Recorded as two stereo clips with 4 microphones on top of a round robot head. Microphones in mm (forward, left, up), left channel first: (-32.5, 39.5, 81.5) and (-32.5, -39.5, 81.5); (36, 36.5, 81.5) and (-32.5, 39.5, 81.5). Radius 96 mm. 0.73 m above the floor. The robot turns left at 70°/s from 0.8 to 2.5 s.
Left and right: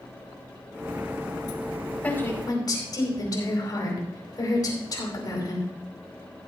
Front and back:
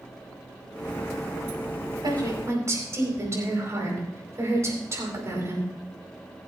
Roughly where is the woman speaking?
Behind.